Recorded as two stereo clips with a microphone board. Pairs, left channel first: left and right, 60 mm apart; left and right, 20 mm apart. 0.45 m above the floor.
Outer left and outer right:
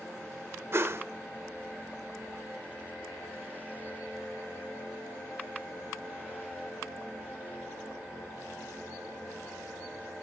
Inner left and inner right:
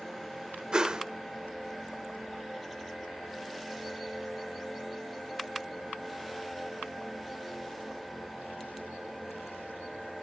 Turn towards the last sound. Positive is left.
turn(degrees=-50)  # may be behind; listen again after turning